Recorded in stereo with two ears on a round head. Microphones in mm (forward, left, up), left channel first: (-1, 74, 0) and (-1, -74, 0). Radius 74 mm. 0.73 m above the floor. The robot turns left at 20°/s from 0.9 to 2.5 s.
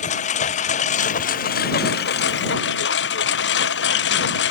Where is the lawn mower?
135° left; by 4.5 s 100° left.